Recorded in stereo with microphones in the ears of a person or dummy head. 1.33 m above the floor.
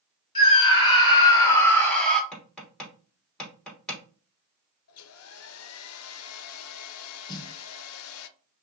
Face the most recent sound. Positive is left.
turn(degrees=30)  # may be behind; listen again after turning